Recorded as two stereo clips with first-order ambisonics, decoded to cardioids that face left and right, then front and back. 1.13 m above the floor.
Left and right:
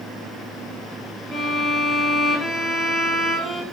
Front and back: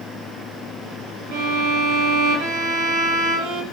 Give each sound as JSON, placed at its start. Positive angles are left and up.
{"t": 1.3, "sound": "a violin", "azimuth_deg": 165, "distance_m": 0.7}